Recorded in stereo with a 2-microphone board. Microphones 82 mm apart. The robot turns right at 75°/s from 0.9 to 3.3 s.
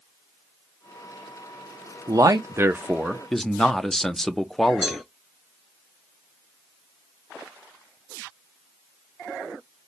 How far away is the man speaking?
About 0.5 m.